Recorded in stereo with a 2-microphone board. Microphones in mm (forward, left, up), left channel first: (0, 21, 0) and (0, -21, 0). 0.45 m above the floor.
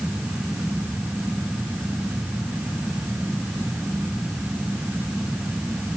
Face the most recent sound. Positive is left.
No sound to turn to.